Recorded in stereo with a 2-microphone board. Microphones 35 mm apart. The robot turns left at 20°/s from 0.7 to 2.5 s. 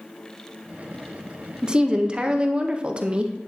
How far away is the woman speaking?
About 0.6 m.